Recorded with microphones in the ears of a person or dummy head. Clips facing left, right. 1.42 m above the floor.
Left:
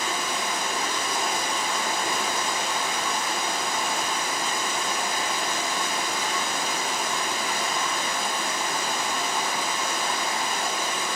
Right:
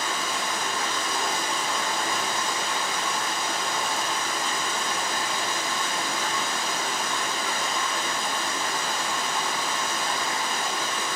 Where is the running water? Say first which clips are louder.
Left 1 dB; 15° left (ahead or behind), 1.3 m.